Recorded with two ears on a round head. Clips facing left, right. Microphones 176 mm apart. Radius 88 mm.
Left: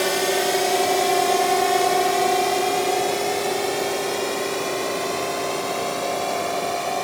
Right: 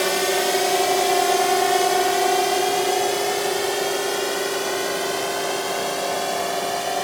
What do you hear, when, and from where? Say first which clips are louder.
0.0 s a drone: even; centre (ahead or behind); by 7.0 s 10° right (ahead or behind)